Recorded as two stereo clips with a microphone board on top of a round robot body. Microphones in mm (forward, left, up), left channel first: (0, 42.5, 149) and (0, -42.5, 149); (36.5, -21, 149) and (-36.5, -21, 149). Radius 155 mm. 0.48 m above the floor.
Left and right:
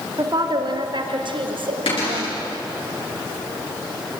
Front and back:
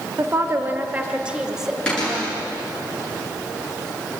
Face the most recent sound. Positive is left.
turn(degrees=75)